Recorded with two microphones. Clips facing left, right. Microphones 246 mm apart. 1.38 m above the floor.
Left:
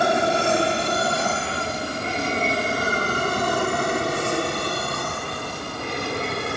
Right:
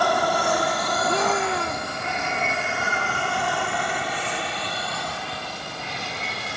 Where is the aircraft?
25° left (ahead or behind); by 6.6 s 60° left (ahead or behind).